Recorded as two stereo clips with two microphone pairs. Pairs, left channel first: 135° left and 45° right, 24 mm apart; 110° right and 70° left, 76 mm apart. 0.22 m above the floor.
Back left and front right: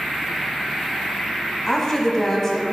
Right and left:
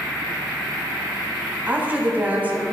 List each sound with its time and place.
1.7 s a woman speaking: 95° left, 1.0 m